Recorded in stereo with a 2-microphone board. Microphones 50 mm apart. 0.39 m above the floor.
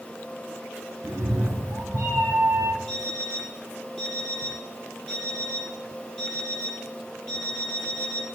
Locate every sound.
1.0 s a cat meowing: 80° right, 2.5 m; by 2.8 s 65° right (ahead or behind), 2.5 m
2.9 s an alarm clock: 15° left (ahead or behind), 7 m